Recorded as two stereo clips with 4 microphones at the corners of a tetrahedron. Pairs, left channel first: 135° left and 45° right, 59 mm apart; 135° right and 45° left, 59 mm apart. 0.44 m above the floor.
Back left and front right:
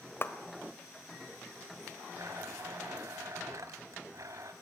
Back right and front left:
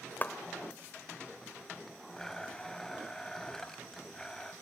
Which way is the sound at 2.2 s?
55° right.